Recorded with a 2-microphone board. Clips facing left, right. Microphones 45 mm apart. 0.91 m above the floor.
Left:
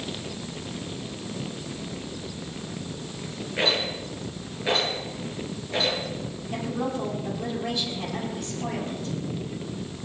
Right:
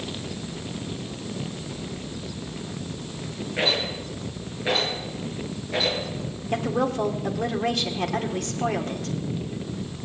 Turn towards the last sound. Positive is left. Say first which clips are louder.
# right 5 dB
turn(degrees=-55)  # may be behind; listen again after turning